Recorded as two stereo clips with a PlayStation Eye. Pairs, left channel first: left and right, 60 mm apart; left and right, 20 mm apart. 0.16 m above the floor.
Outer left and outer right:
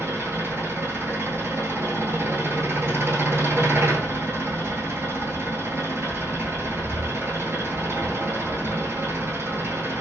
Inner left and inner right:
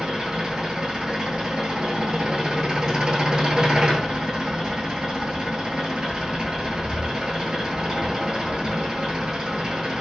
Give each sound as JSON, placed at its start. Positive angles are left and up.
{"t": 0.0, "sound": "an engine running", "side_deg": -45, "distance_m": 0.9}